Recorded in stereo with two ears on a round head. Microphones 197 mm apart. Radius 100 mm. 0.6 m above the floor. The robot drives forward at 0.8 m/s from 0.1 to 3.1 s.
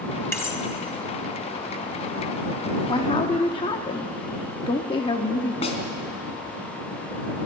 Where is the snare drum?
30° left (ahead or behind), 2.5 m.